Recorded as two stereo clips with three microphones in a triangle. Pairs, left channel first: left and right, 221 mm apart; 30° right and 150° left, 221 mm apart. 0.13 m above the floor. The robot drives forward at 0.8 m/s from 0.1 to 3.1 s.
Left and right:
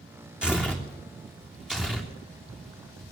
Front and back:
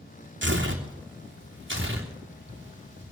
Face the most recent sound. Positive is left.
turn(degrees=180)